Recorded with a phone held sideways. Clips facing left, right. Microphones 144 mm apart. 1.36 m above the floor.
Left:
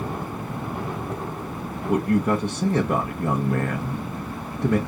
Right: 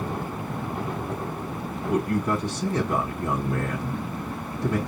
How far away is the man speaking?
About 1.0 m.